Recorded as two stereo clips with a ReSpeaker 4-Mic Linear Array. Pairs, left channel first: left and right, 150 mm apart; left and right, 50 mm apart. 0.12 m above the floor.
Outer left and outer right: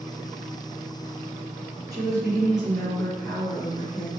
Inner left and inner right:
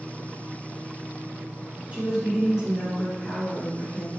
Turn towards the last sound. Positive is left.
turn(degrees=35)  # may be behind; listen again after turning